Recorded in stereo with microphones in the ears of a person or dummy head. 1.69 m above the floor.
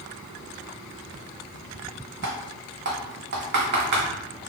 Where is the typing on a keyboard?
50° right (ahead or behind), 0.6 m.